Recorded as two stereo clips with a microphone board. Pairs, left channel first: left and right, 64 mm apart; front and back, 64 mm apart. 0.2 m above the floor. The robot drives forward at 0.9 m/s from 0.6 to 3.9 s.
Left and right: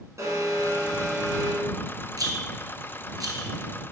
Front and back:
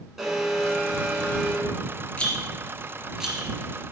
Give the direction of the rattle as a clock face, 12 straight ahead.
2 o'clock.